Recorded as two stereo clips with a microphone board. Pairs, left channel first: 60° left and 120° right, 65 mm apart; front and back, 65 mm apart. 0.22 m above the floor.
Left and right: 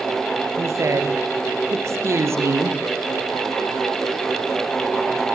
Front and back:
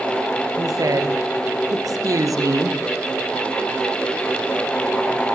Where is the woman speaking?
160° right, 5.5 m.